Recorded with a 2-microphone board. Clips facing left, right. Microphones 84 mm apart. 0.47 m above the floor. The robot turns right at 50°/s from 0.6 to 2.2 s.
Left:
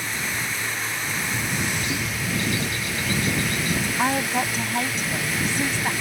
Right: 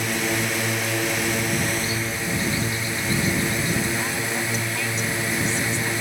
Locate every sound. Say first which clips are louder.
0.0 s a drone: right 5 dB; 105° right; by 6.0 s 25° right
1.7 s a bird: right 1 dB; 70° left (ahead or behind); by 3.9 s 75° left (ahead or behind)
4.0 s a woman speaking: left 4 dB; 50° left (ahead or behind)